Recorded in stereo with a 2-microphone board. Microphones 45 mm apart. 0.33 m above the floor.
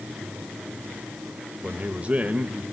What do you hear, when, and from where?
1.6 s a man speaking: 30° right (ahead or behind), 0.9 m